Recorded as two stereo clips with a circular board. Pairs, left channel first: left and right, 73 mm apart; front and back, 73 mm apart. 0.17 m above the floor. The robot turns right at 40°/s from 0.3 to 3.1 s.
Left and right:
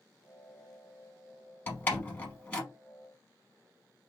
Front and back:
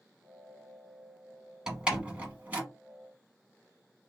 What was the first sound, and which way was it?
A door slam, 110° left.